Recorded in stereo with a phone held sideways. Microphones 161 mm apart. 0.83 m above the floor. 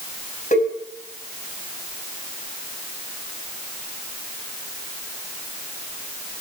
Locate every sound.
0.5 s a cowbell: 50° left (ahead or behind), 5 m